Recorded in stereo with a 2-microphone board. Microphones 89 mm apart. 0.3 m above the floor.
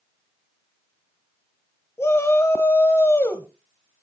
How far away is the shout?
About 1.3 m.